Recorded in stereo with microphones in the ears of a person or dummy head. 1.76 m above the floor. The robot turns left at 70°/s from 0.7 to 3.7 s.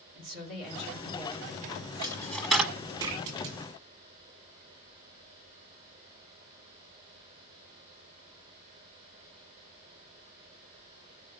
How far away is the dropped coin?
About 1.3 m.